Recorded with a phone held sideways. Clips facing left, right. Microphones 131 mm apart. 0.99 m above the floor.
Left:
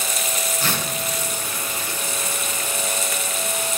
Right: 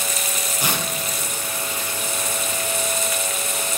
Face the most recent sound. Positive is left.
turn(degrees=-15)  # may be behind; listen again after turning